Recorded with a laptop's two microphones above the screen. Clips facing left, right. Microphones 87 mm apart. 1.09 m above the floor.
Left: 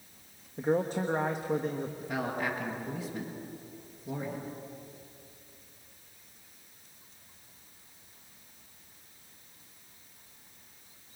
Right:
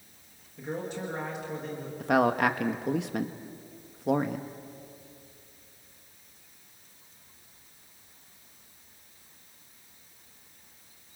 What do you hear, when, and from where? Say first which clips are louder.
0.6 s a man speaking: left 6 dB; 40° left (ahead or behind), 1.2 m
2.0 s a man speaking: right 12 dB; 70° right (ahead or behind), 1.2 m